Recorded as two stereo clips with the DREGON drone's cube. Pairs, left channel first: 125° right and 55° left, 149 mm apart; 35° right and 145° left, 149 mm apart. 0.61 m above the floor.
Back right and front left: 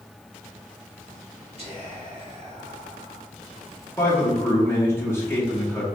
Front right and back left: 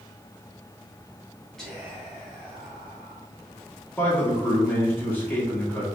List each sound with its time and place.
1.6 s whispering: 50° left, 1.3 m
4.0 s a man speaking: 85° right, 0.8 m